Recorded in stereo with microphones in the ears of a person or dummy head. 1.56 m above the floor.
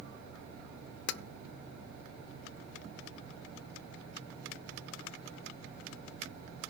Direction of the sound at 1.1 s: 60° left (ahead or behind).